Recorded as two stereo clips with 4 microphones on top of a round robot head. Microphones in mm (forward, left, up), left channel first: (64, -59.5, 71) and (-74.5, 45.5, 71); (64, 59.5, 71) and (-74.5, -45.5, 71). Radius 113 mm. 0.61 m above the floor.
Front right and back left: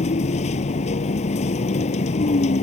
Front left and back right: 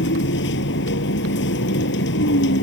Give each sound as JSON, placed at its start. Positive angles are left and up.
{"t": 0.0, "sound": "a vehicle", "azimuth_deg": 15}